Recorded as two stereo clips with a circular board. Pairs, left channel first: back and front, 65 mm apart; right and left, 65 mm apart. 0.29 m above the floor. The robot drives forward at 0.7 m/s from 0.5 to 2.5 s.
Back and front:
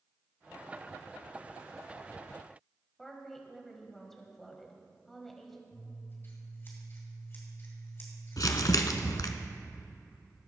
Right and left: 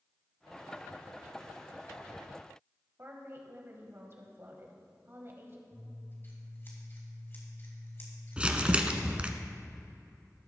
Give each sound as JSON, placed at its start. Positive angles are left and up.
{"t": 3.0, "sound": "a woman speaking", "azimuth_deg": 95, "distance_m": 1.6}
{"t": 5.7, "sound": "scissors", "azimuth_deg": -135, "distance_m": 2.5}
{"t": 8.4, "sound": "crumpling", "azimuth_deg": 160, "distance_m": 0.8}